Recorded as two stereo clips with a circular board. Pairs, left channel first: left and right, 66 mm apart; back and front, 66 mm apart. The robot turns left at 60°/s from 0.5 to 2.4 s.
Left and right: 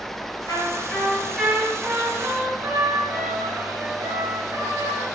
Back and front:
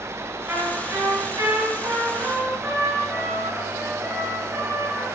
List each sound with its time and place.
0.5 s a trumpet: 50° left, 7.5 m; by 5.0 s 65° right, 7.5 m